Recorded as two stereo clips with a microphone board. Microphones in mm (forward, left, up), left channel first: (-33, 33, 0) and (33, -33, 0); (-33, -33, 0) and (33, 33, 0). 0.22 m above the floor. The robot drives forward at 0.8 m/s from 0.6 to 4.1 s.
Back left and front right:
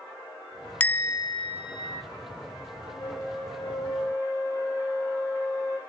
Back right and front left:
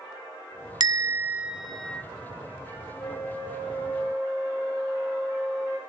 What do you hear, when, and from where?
0.8 s a bell: 65° left, 0.6 m; by 2.0 s 150° left, 1.0 m
3.0 s a flute: 170° right, 7 m; by 5.8 s 175° right, 8 m